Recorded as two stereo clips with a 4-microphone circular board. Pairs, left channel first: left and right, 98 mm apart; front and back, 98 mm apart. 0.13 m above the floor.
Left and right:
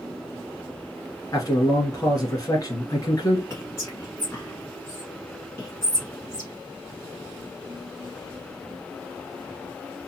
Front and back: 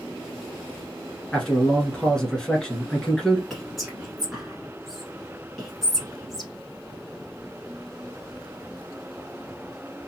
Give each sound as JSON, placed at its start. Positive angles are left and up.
{"t": 1.3, "sound": "a man speaking", "azimuth_deg": 80, "distance_m": 1.5}
{"t": 3.5, "sound": "whispering", "azimuth_deg": 90, "distance_m": 1.4}